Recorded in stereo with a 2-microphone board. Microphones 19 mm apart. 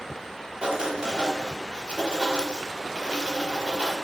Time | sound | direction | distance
0.6 | writing | 60° right (ahead or behind) | 0.6 m